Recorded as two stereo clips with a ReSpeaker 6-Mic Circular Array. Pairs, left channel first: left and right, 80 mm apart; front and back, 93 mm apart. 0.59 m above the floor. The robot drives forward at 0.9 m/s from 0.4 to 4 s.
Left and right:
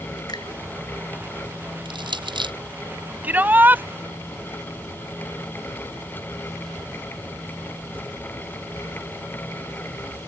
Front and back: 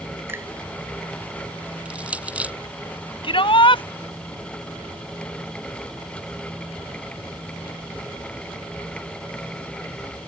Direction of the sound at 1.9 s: 100° right.